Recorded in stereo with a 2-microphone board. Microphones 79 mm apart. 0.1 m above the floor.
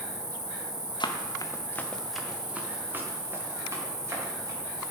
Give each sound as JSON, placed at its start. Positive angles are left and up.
{"t": 0.0, "sound": "an insect", "side_deg": 45, "distance_m": 1.6}
{"t": 1.0, "sound": "running footsteps", "side_deg": 70, "distance_m": 1.1}